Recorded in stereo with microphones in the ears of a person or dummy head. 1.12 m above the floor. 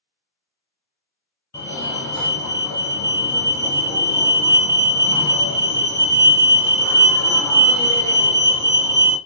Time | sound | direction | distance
1.5 | a fire alarm | 20° left (ahead or behind) | 1.5 m